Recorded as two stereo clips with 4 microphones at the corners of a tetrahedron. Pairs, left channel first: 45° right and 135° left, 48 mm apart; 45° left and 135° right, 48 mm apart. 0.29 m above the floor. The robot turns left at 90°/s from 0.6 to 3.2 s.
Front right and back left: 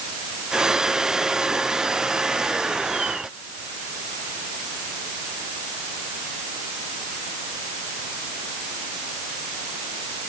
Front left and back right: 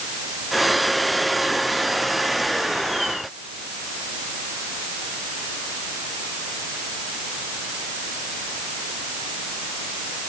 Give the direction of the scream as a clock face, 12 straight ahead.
I don't hear a scream.